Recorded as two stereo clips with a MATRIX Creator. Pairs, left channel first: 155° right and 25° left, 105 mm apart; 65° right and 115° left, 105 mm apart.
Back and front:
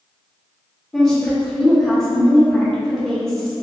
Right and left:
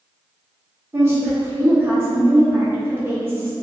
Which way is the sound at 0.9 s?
125° left.